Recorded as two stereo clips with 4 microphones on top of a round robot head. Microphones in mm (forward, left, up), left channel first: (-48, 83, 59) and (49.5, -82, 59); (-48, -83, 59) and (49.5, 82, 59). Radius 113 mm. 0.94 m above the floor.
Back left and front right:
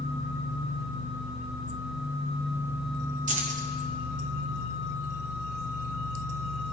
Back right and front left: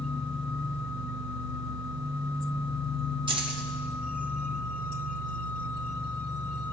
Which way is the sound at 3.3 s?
5° right.